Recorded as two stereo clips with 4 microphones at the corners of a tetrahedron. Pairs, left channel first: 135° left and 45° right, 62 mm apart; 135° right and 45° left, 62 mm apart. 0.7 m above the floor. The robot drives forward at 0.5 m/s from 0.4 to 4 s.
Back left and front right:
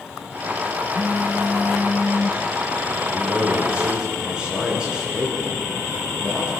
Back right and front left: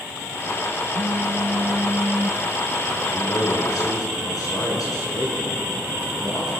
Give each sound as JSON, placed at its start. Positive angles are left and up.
{"t": 0.9, "sound": "a phone buzzing", "azimuth_deg": 55, "distance_m": 0.9}
{"t": 3.1, "sound": "a man speaking", "azimuth_deg": -120, "distance_m": 8.5}